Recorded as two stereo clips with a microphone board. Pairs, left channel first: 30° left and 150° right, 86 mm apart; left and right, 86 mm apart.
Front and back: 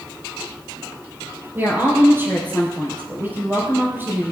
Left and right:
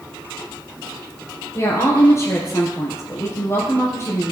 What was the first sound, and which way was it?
A woman speaking, 145° left.